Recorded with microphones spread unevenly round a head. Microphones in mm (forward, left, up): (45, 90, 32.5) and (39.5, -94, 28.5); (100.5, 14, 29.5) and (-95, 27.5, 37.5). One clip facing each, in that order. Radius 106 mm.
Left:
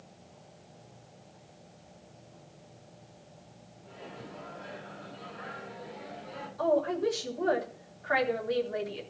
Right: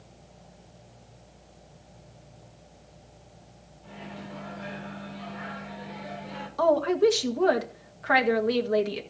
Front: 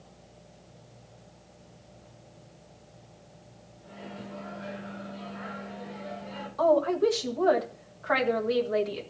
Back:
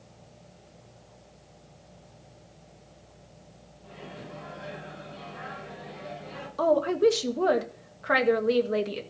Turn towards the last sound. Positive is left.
turn(degrees=-125)